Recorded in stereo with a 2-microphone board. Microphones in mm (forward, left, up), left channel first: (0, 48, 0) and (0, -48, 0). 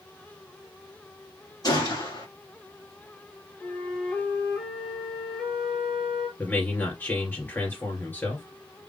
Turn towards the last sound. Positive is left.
turn(degrees=20)  # may be behind; listen again after turning